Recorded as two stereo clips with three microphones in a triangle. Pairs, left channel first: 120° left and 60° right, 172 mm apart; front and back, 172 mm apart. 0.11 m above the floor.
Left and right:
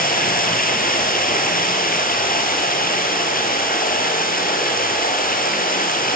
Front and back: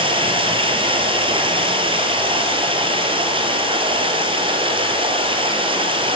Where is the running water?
125° left, 2 m.